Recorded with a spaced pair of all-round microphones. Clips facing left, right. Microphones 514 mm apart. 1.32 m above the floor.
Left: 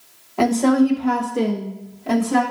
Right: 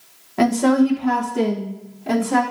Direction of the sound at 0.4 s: 40° right (ahead or behind).